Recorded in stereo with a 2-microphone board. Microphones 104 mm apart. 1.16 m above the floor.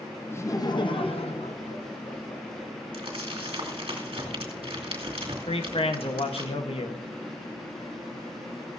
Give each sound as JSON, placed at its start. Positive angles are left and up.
{"t": 0.3, "sound": "laughter", "side_deg": 20, "distance_m": 0.9}
{"t": 2.9, "sound": "crumpling", "side_deg": -65, "distance_m": 2.5}
{"t": 5.5, "sound": "a man speaking", "side_deg": 65, "distance_m": 1.1}